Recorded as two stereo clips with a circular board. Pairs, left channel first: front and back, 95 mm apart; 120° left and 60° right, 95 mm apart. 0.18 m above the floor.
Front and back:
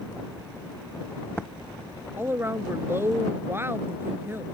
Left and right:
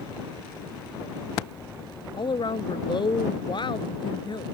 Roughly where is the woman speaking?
Behind left.